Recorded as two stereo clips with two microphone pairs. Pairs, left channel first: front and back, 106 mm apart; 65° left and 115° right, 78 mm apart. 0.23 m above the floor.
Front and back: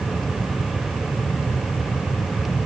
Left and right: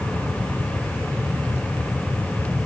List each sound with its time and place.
Only background noise.